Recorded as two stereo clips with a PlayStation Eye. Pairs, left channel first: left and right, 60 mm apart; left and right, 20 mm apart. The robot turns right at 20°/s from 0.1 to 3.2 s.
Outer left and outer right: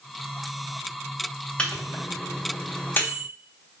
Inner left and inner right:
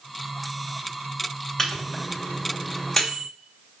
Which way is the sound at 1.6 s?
20° left (ahead or behind).